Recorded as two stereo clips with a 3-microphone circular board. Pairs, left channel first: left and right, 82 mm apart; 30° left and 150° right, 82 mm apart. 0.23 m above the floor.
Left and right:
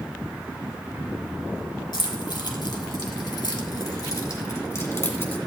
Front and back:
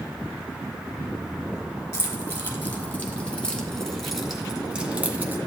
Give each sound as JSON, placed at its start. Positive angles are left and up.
{"t": 1.9, "sound": "keys jangling", "azimuth_deg": 90, "distance_m": 2.5}